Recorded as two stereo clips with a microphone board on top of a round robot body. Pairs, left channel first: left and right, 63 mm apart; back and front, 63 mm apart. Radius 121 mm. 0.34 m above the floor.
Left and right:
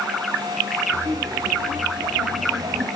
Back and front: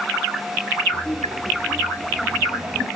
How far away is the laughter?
About 2 m.